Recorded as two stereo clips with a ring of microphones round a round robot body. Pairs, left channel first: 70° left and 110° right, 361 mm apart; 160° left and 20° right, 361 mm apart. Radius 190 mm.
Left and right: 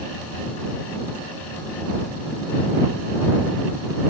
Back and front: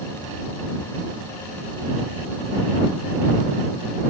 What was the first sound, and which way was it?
Only background noise.